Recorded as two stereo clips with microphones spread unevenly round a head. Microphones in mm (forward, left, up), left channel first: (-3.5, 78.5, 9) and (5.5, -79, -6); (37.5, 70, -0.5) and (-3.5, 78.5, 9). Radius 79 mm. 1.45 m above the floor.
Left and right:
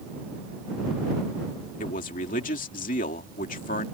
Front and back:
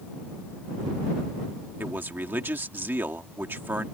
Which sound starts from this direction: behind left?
A man speaking, at 1.8 s.